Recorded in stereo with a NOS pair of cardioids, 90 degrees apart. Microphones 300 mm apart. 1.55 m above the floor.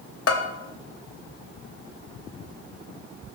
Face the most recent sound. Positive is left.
turn(degrees=55)